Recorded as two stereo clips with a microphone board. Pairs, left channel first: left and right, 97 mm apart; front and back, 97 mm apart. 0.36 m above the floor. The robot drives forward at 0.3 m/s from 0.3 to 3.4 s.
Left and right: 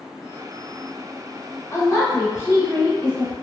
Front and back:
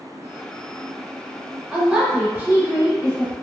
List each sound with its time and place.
1.7 s a woman speaking: 105° left, 1.1 m; by 3.3 s 135° left, 1.3 m